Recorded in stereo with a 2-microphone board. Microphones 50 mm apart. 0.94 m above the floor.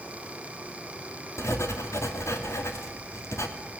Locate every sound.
1.4 s writing: 70° left (ahead or behind), 2.5 m